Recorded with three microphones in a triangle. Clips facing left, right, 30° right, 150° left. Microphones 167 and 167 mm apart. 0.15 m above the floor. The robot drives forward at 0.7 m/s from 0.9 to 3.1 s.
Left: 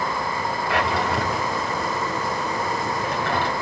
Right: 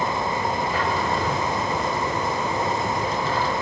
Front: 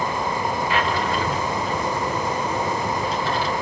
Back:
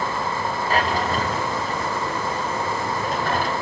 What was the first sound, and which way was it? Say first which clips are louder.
A drawer: left 1 dB, back 3 dB; 100° left.